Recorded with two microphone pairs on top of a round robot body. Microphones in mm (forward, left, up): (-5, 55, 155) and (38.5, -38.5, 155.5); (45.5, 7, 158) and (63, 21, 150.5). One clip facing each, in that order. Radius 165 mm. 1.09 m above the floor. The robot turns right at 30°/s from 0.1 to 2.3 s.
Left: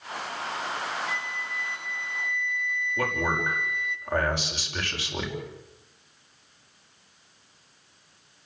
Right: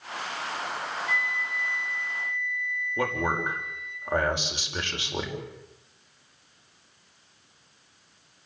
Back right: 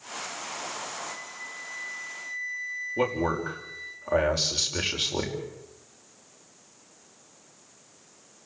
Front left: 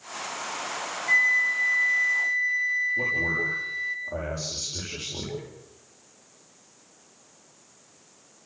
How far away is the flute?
About 1.8 m.